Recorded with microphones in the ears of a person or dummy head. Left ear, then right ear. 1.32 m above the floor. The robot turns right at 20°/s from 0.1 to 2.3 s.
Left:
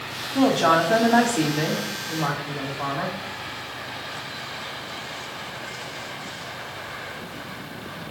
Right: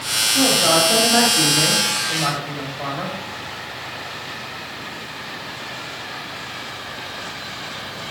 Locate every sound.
0.3 s a woman speaking: 135° left, 2.5 m; by 3.2 s 175° left, 2.5 m